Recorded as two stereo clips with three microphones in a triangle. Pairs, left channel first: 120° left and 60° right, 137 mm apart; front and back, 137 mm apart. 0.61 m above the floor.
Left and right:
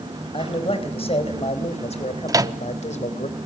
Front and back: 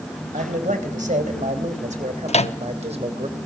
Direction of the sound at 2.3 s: Straight ahead.